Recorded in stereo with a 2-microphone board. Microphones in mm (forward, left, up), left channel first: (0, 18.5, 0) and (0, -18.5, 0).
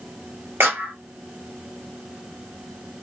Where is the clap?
80° right, 1.4 m.